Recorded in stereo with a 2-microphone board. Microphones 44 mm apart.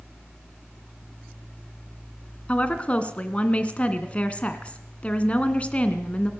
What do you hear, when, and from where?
2.5 s a woman speaking: 30° left (ahead or behind), 2 m